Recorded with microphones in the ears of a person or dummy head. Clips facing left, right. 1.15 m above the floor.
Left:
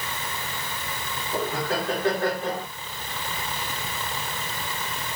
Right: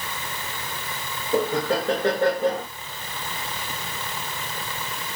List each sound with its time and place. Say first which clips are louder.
1.3 s laughter: right 5 dB; 30° right (ahead or behind), 2 m